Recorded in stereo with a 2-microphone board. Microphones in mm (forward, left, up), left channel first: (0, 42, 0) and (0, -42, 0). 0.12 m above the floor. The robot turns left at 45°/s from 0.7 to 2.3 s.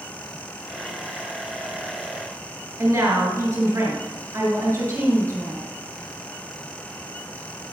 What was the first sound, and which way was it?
A woman speaking, 35° right (ahead or behind).